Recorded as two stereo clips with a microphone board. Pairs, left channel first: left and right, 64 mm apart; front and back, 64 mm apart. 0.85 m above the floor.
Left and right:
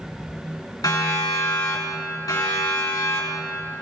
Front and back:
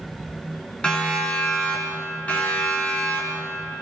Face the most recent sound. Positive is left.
turn(degrees=60)